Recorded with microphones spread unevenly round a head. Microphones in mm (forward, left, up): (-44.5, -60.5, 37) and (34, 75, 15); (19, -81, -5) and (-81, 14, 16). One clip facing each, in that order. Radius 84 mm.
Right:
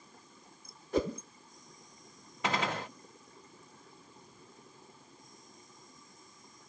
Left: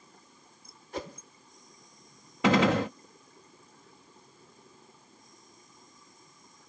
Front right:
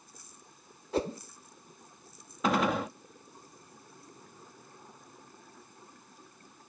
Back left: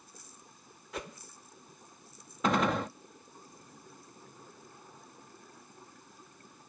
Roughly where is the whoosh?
Right.